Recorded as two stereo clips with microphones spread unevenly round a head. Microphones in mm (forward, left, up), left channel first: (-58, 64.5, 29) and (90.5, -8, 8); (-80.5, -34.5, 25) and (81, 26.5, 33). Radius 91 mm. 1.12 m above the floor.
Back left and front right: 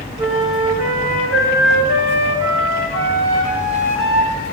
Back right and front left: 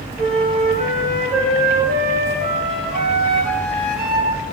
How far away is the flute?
About 2 m.